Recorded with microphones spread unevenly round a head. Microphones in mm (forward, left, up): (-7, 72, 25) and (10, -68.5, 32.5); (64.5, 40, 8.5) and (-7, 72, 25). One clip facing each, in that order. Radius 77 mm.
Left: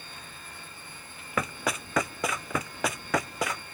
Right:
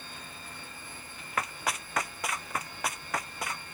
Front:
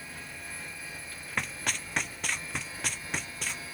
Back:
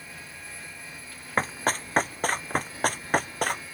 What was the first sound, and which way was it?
Running footsteps, 110° left.